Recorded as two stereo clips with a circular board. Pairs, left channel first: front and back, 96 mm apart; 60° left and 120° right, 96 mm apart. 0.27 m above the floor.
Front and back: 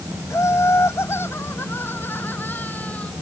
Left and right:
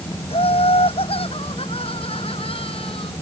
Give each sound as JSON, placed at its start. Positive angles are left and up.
{"t": 0.3, "sound": "laughter", "azimuth_deg": 60}